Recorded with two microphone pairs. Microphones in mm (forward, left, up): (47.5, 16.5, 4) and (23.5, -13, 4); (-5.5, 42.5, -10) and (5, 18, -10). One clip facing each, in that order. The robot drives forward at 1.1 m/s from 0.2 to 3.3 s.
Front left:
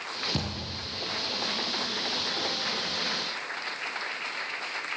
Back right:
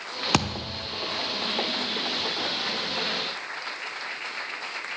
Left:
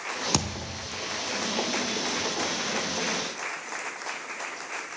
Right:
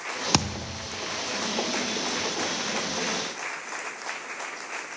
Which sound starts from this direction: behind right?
A thud, at 0.3 s.